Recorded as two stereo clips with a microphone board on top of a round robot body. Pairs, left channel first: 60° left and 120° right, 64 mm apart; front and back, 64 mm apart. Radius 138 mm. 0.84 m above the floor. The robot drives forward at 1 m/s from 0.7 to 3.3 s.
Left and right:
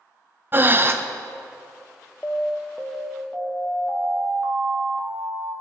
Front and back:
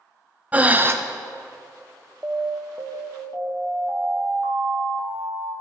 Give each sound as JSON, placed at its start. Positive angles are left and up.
{"t": 0.5, "sound": "breathing", "azimuth_deg": -135, "distance_m": 0.7}
{"t": 2.2, "sound": "an alarm", "azimuth_deg": 125, "distance_m": 0.5}